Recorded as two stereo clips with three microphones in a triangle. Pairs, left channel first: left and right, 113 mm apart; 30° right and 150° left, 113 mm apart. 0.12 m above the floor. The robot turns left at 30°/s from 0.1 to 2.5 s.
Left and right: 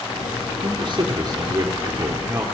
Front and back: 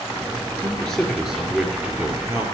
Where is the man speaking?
105° right, 2 m; by 2.5 s 160° right, 2 m.